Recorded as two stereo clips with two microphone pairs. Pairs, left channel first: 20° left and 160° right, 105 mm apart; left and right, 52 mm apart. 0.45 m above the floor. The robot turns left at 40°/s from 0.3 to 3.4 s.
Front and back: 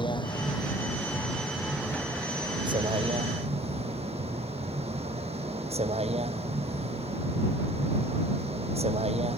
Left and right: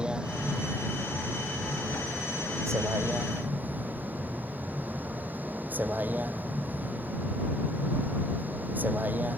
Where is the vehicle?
20° right; by 9.4 s 145° right.